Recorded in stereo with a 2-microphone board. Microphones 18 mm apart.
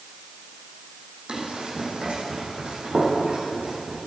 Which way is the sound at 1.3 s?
70° right (ahead or behind).